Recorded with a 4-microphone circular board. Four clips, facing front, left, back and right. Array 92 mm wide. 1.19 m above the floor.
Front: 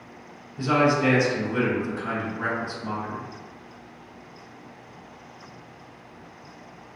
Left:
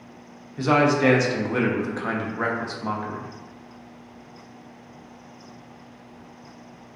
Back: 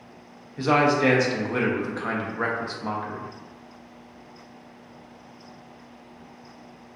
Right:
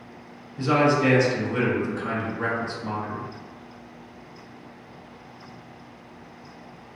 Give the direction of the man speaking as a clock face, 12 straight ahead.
8 o'clock.